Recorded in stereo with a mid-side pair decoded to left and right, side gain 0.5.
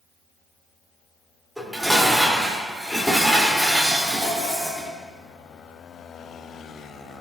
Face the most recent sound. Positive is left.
turn(degrees=0)